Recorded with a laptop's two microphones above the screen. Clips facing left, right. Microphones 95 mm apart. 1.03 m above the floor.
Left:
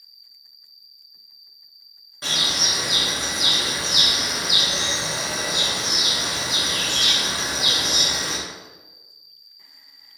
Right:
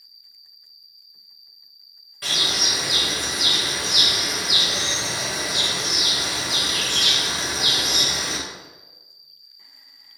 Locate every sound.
0.0 s an insect: 60° right (ahead or behind), 0.9 m
2.2 s a bird: 25° left (ahead or behind), 0.9 m